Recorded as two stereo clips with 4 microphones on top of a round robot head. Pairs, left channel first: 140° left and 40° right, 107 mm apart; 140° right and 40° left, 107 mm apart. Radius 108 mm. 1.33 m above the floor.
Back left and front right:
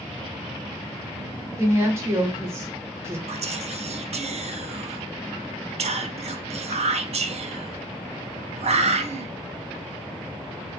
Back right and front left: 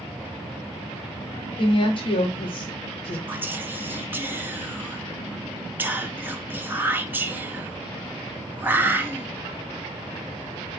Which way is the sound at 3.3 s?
30° right.